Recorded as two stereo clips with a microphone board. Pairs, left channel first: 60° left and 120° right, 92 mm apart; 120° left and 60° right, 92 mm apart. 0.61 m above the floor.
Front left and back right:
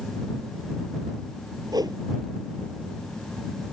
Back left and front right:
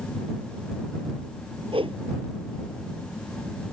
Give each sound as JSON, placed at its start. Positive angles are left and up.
{"t": 1.7, "sound": "a whoosh", "azimuth_deg": -75}